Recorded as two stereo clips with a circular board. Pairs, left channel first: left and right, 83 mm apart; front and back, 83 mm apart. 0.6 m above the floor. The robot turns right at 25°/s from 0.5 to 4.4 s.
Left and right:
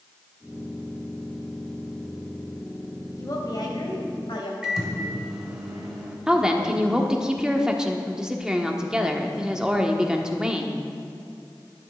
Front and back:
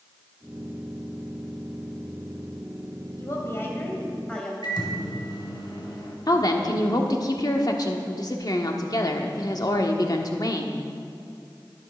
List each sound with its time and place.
3.2 s a woman speaking: 45° left, 3 m; by 4.5 s 80° left, 3 m
4.6 s a microwave: 5° right, 2 m
6.3 s a woman speaking: 10° right, 1.2 m